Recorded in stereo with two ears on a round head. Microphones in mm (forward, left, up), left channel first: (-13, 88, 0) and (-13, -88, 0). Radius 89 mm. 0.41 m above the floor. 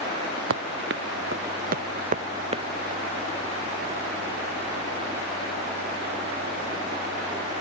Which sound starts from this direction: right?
Running footsteps, at 0.5 s.